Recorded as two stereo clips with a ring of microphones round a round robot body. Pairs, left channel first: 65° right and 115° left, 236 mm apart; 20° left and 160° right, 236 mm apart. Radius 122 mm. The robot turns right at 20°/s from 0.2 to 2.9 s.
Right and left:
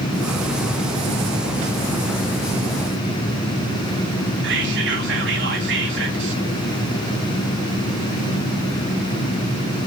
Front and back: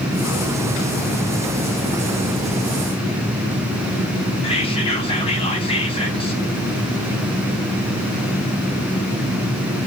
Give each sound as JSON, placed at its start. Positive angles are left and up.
{"t": 4.4, "sound": "whispering", "azimuth_deg": 85, "distance_m": 3.0}